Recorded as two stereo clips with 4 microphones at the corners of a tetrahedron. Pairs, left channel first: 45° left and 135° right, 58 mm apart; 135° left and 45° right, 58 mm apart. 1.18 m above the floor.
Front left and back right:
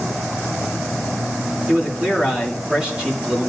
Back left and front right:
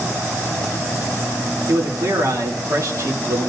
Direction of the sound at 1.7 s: 65° right.